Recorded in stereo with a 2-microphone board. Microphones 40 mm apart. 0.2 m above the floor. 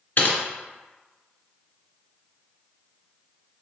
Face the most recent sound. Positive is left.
turn(degrees=55)  # may be behind; listen again after turning